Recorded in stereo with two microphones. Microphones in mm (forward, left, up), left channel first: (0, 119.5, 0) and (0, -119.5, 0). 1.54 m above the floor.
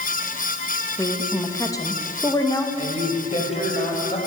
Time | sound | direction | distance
1.0 | a woman speaking | 15° left (ahead or behind) | 2.5 m
2.8 | a man speaking | 25° left (ahead or behind) | 7 m